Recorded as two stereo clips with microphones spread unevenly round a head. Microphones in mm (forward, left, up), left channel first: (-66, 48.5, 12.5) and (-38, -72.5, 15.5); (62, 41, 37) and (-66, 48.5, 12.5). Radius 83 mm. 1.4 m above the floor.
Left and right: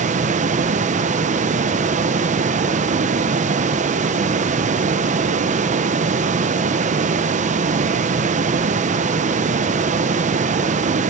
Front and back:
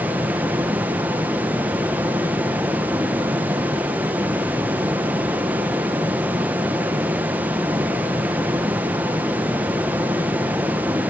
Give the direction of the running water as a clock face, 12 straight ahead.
3 o'clock.